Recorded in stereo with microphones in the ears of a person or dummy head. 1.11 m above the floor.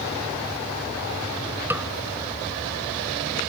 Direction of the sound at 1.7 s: 10° right (ahead or behind).